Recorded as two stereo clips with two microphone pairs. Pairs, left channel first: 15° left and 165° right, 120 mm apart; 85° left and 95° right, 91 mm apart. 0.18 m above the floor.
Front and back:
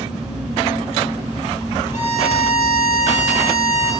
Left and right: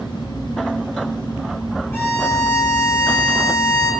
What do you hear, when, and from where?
1.9 s a violin: 25° left, 3.5 m